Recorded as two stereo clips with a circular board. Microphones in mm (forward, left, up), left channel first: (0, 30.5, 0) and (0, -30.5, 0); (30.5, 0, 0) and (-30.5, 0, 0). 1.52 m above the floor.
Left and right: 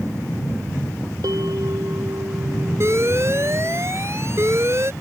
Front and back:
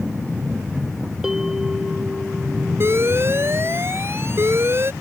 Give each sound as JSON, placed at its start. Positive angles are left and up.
{"t": 1.2, "sound": "a bell", "azimuth_deg": -100}
{"t": 2.8, "sound": "an alarm", "azimuth_deg": -135}